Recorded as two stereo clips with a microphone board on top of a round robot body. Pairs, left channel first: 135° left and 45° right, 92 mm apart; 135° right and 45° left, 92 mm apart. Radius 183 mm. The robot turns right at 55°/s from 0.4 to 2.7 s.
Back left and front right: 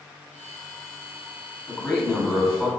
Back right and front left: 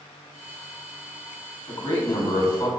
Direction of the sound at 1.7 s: 175° right.